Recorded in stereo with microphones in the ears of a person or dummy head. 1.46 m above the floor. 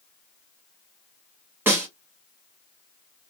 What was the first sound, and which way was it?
A snare drum, 10° right (ahead or behind).